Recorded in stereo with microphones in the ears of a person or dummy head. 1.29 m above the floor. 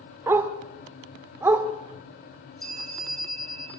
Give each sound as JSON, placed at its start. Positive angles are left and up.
{"t": 0.3, "sound": "a dog barking", "side_deg": -10, "distance_m": 1.3}
{"t": 2.6, "sound": "a bell", "side_deg": 0, "distance_m": 9.5}